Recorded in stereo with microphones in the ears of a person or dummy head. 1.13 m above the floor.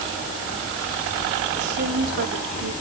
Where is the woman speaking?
70° right (ahead or behind), 3.5 m; by 2.7 s 65° right (ahead or behind), 2.5 m.